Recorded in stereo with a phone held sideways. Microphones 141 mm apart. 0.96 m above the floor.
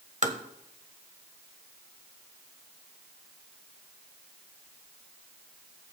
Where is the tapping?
55° right (ahead or behind), 1.2 m.